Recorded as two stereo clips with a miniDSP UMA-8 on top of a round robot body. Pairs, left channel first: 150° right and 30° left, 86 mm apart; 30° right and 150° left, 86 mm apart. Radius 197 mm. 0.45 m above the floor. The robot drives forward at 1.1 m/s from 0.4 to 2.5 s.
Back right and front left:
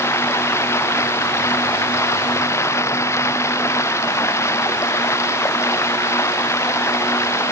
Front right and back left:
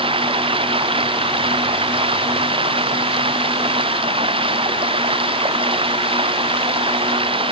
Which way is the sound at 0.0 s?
150° left.